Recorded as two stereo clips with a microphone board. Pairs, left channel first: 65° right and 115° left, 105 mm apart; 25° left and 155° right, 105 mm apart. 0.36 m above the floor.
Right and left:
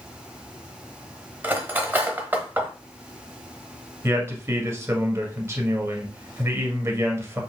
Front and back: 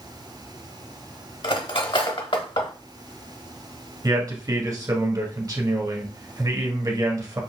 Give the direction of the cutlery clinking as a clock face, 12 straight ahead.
11 o'clock.